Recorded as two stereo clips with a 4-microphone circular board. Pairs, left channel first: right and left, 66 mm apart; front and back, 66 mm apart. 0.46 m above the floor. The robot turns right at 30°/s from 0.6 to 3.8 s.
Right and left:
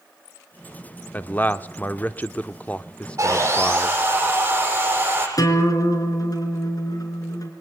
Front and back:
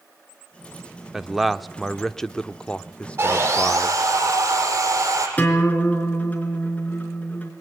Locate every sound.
1.1 s a man speaking: 100° right, 0.8 m; by 4.0 s 20° right, 0.8 m
3.2 s sawing: 135° left, 7.5 m; by 5.3 s 155° left, 7.5 m
5.4 s a guitar: 65° right, 4.5 m